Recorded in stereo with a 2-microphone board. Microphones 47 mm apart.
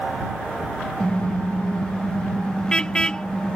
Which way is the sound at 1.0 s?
20° left (ahead or behind).